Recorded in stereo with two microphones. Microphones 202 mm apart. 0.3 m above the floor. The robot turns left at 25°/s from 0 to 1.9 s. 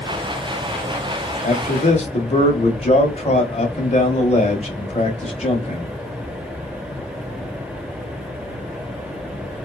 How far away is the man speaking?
About 1.0 m.